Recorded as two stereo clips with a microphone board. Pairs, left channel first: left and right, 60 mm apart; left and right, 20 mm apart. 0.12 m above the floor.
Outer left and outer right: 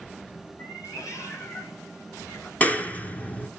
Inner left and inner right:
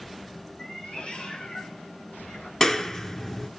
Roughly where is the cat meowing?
Left.